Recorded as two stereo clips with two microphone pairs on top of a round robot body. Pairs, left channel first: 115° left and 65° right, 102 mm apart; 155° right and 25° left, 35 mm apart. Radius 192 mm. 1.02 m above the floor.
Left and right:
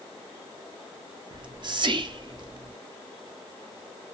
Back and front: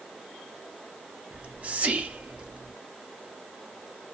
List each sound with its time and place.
1.3 s whispering: 25° right, 0.6 m